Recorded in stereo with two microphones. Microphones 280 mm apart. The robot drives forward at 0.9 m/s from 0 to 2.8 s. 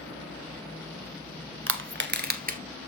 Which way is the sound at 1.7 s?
45° right (ahead or behind).